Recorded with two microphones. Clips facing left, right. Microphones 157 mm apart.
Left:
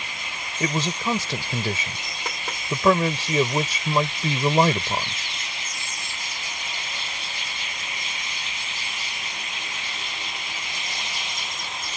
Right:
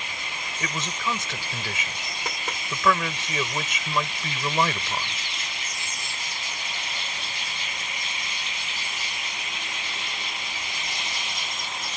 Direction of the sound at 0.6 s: 35° left (ahead or behind).